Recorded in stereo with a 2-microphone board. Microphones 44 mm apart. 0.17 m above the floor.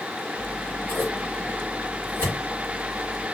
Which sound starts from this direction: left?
Scissors, at 0.4 s.